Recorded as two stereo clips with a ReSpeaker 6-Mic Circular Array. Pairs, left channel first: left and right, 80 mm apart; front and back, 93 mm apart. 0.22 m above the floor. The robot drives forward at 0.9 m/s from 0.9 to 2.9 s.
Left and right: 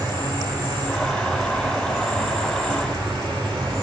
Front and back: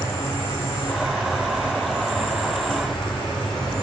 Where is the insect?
60° right, 5 m; by 3.8 s 85° right, 4.5 m.